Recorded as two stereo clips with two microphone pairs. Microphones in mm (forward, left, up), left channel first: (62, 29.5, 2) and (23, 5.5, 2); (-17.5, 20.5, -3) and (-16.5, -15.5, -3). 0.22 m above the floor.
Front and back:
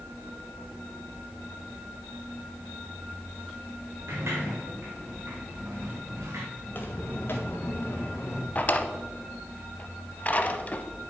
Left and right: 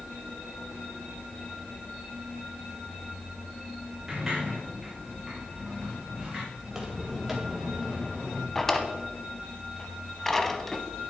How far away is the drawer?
About 0.8 m.